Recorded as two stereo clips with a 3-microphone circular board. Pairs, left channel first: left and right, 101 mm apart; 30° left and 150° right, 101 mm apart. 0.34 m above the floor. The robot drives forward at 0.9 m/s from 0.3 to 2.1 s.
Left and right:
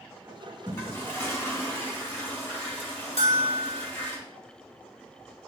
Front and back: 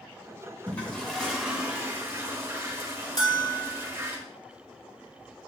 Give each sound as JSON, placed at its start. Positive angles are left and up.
{"t": 0.7, "sound": "a toilet flushing", "azimuth_deg": 75, "distance_m": 1.5}
{"t": 3.2, "sound": "a bell", "azimuth_deg": 80, "distance_m": 1.5}